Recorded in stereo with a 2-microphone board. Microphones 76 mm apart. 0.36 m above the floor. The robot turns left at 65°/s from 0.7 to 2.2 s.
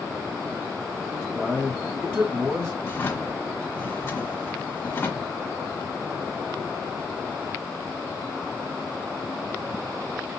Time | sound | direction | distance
1.3 | a man speaking | 15° left | 2 m
2.8 | a drawer | 30° left (ahead or behind) | 1.4 m